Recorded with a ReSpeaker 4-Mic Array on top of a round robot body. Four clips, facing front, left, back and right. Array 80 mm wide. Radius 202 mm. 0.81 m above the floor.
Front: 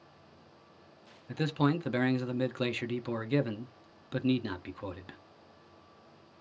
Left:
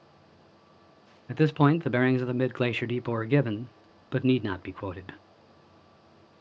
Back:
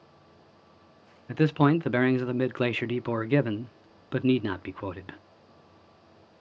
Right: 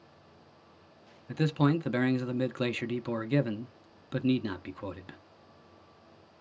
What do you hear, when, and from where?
1.3 s a man speaking: 145° left, 0.6 m